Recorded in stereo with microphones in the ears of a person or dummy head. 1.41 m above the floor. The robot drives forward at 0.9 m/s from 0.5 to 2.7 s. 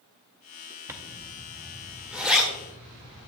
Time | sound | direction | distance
0.9 | a zipper | 15° right (ahead or behind) | 0.8 m